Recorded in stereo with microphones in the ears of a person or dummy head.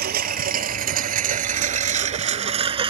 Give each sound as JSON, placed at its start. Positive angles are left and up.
{"t": 0.0, "sound": "a lawn mower", "side_deg": -50}